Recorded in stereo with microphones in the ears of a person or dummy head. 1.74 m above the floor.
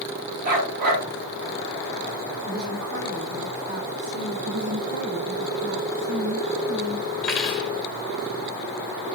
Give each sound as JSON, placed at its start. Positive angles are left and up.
{"t": 0.4, "sound": "a dog barking", "side_deg": -50, "distance_m": 6.0}
{"t": 2.4, "sound": "a woman speaking", "side_deg": -50, "distance_m": 5.5}
{"t": 4.5, "sound": "a woman speaking", "side_deg": -65, "distance_m": 1.9}
{"t": 7.2, "sound": "cutlery clinking", "side_deg": 5, "distance_m": 1.4}